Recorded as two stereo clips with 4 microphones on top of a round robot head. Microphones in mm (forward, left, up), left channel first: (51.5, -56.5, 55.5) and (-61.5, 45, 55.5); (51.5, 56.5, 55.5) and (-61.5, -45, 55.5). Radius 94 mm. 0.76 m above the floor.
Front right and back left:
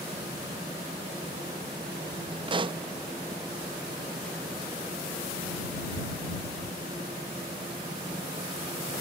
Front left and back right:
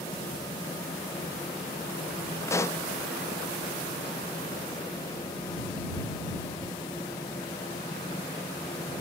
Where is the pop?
105° left.